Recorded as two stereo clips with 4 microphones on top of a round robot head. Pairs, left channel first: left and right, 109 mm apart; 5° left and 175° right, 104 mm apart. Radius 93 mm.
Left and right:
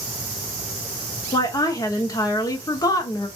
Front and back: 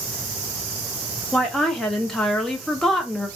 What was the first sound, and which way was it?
A woman speaking, 85° left.